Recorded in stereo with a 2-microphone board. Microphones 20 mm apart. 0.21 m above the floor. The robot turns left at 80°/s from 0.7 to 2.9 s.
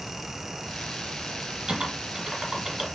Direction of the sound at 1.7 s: 45° right (ahead or behind).